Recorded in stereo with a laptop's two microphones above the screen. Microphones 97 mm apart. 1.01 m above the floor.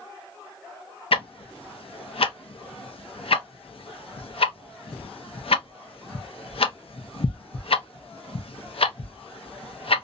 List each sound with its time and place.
1.1 s ticking: 75° left (ahead or behind), 0.5 m